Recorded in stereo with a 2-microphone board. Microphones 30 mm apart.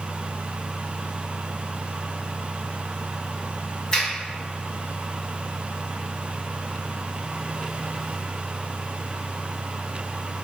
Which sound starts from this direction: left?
A finger snap, at 3.9 s.